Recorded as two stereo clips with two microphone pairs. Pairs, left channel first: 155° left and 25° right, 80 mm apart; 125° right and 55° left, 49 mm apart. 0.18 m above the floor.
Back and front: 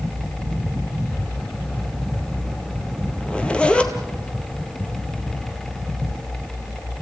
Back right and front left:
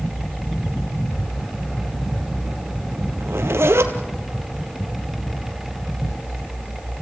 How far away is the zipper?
About 1.6 m.